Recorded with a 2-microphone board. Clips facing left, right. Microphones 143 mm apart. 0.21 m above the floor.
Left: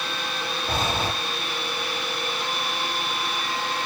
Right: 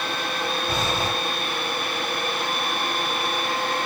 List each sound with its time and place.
0.7 s breathing: 50° left (ahead or behind), 4 m